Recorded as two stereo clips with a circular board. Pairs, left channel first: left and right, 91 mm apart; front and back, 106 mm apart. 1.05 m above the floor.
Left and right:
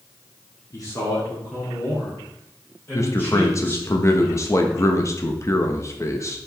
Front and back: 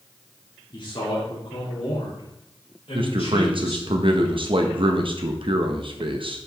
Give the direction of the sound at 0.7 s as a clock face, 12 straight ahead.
11 o'clock.